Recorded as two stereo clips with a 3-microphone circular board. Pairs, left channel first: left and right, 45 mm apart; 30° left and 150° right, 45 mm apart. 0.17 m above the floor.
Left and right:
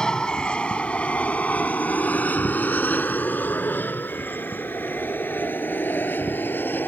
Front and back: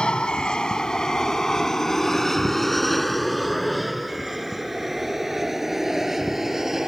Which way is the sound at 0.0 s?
50° left.